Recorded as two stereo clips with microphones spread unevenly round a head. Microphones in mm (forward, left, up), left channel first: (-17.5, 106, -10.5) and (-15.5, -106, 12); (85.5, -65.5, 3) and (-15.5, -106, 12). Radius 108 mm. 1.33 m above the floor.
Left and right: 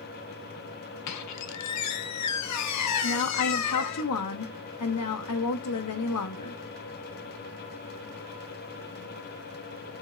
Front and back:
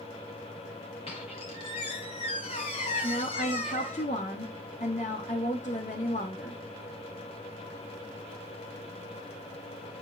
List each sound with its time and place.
1.1 s a squeak: 85° left, 0.7 m
3.0 s a woman speaking: 70° left, 0.8 m